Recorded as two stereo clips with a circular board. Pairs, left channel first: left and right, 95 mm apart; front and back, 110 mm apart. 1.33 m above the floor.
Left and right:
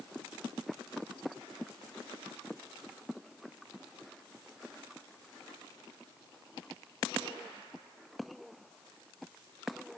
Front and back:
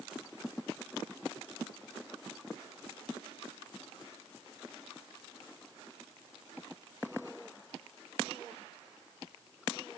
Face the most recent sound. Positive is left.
No sound to turn to.